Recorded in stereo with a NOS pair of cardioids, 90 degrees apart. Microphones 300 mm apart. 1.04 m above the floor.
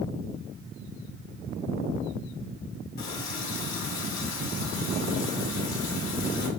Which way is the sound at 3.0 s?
65° left.